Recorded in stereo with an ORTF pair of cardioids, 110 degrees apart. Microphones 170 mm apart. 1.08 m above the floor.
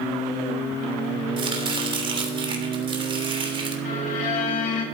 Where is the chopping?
30° right, 3 m.